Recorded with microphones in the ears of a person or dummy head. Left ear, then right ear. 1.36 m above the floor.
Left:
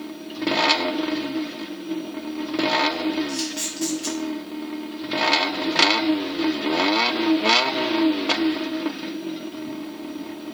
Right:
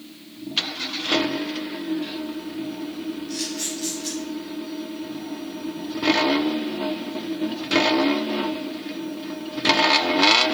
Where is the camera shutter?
60° left (ahead or behind), 3 m.